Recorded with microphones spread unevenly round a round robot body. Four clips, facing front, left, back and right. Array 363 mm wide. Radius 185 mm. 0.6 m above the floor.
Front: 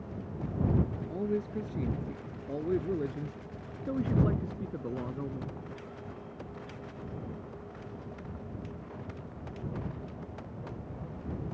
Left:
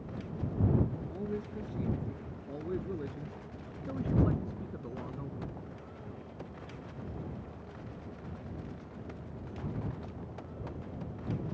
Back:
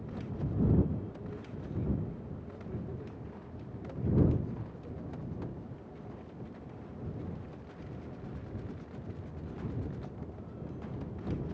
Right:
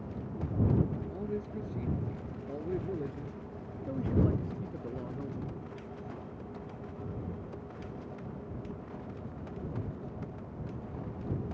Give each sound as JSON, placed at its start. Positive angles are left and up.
{"t": 1.1, "sound": "a man speaking", "azimuth_deg": 5}